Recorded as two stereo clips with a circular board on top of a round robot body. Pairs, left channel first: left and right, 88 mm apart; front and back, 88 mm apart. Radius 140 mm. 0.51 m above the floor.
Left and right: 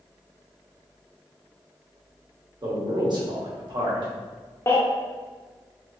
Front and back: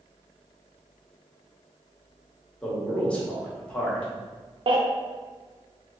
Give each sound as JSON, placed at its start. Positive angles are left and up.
{"t": 2.6, "sound": "a man speaking", "azimuth_deg": -75, "distance_m": 1.7}
{"t": 4.7, "sound": "a baby crying", "azimuth_deg": 155, "distance_m": 0.7}